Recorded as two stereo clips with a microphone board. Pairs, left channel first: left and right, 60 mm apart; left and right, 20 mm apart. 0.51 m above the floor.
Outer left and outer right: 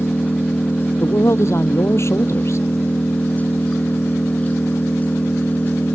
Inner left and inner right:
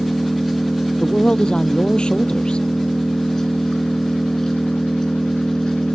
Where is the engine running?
30° left (ahead or behind).